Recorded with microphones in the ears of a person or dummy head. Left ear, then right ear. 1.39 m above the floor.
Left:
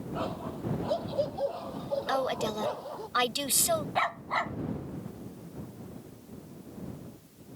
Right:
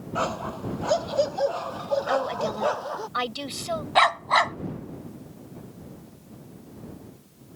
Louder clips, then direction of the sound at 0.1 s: Right 8 dB; 55° right (ahead or behind).